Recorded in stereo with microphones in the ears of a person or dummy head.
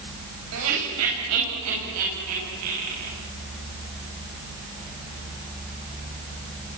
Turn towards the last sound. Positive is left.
turn(degrees=-80)